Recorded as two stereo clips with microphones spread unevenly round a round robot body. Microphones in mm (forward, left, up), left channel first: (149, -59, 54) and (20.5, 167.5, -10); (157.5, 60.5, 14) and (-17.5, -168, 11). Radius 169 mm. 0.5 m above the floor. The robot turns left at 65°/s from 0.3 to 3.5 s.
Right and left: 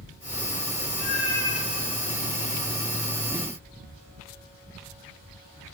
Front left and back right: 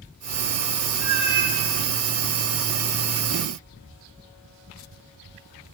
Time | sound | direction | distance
1.0 | a cat meowing | 95° right | 2.0 m